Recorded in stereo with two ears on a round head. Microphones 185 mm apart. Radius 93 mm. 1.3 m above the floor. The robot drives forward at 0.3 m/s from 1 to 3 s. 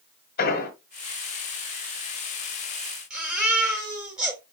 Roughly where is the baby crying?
Centre.